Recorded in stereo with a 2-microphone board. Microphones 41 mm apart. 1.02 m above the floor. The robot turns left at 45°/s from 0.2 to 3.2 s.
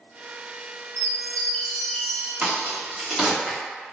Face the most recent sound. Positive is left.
turn(degrees=-5)  # may be behind; listen again after turning